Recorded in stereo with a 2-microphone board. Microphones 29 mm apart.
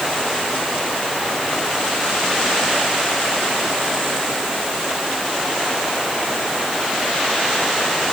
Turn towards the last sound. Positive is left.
No sound to turn to.